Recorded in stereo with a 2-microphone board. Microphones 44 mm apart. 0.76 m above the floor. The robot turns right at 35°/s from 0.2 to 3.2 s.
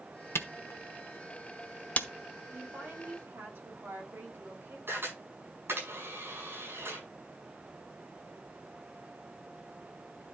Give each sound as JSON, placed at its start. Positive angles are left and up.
{"t": 0.3, "sound": "a camera shutter", "side_deg": 85, "distance_m": 0.9}
{"t": 2.5, "sound": "a woman speaking", "side_deg": -35, "distance_m": 4.0}
{"t": 4.9, "sound": "a camera shutter", "side_deg": -60, "distance_m": 8.0}